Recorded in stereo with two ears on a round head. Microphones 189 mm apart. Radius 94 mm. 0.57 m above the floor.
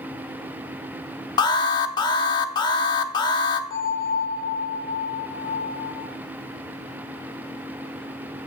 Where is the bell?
15° left (ahead or behind), 2.5 m.